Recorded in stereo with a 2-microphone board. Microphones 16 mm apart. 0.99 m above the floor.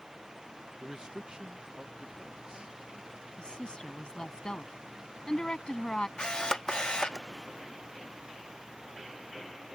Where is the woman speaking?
60° left (ahead or behind).